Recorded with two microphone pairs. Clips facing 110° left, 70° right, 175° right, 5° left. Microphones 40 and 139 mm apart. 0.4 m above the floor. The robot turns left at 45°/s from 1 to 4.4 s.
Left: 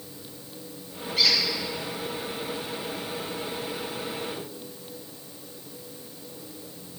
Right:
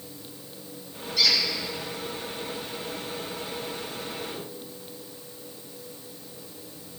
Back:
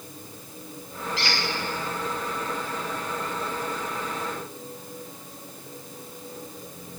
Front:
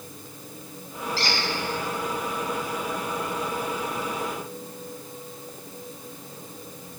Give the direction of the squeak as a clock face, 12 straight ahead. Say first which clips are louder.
Even, front 1 dB; 10 o'clock.